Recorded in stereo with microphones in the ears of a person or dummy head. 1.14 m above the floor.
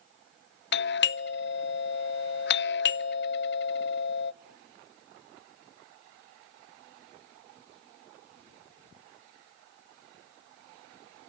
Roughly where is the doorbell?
Left.